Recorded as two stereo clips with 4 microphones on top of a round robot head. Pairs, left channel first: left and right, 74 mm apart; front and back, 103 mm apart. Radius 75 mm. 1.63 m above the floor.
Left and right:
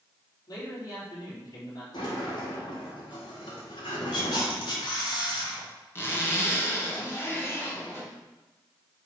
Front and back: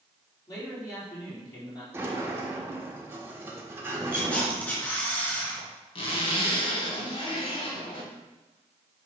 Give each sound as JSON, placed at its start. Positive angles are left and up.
{"t": 0.5, "sound": "a man speaking", "azimuth_deg": 55, "distance_m": 3.5}
{"t": 1.9, "sound": "a sliding door", "azimuth_deg": 120, "distance_m": 1.4}
{"t": 4.1, "sound": "a camera shutter", "azimuth_deg": 75, "distance_m": 3.0}
{"t": 6.0, "sound": "a zipper", "azimuth_deg": 35, "distance_m": 1.9}